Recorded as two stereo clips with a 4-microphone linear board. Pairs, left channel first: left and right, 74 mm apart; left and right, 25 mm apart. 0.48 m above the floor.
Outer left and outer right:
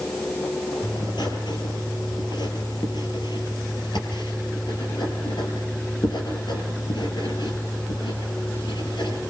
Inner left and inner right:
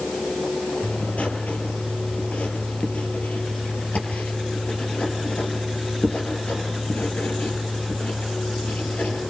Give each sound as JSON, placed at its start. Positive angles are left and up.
{"t": 0.8, "sound": "writing", "side_deg": 85, "distance_m": 5.5}